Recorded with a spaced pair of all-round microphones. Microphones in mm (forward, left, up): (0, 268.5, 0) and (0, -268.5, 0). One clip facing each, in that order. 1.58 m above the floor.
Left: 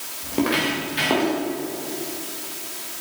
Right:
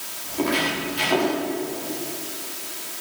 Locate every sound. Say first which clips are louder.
0.2 s footsteps: left 2 dB; 80° left, 10 m; by 1.3 s 75° left (ahead or behind), 10.5 m